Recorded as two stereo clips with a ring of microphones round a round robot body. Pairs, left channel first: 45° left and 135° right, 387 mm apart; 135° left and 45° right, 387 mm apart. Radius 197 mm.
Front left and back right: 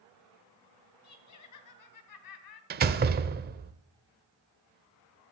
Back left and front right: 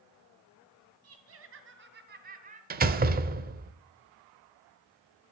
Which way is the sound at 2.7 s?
90° right.